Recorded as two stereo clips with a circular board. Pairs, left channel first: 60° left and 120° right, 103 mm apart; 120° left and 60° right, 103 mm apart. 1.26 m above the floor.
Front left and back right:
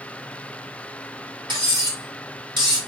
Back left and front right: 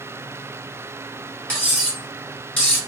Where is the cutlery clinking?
165° right, 2.5 m.